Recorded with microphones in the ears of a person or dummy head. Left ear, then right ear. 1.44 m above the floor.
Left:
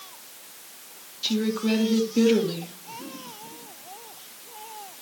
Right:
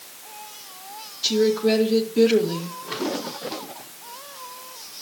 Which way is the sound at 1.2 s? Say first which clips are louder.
Right 7 dB; 15° left (ahead or behind).